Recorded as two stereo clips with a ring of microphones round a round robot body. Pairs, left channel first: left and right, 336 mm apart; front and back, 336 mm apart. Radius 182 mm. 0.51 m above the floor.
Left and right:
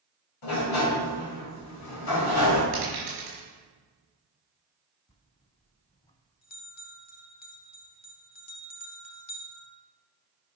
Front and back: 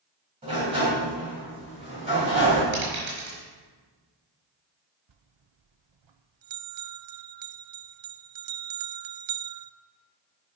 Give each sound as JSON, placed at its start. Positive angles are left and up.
{"t": 0.4, "sound": "a sliding door", "azimuth_deg": 105, "distance_m": 2.5}
{"t": 2.7, "sound": "a dropped coin", "azimuth_deg": -145, "distance_m": 5.0}
{"t": 5.1, "sound": "a bell", "azimuth_deg": 160, "distance_m": 0.5}